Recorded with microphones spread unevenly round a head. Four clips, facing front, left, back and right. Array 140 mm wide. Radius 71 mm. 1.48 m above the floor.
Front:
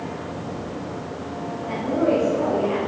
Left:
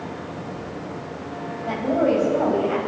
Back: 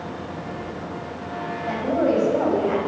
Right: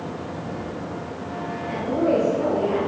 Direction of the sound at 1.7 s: 120° left.